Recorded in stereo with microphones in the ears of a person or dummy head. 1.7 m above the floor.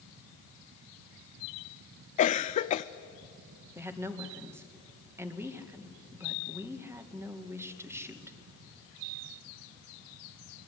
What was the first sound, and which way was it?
A cough, 35° left (ahead or behind).